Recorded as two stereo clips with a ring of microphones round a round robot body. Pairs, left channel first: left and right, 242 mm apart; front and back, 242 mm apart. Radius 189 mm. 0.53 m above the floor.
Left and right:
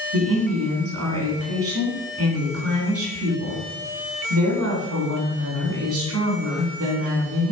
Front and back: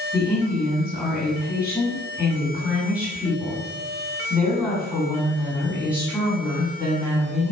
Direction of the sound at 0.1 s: 95° right.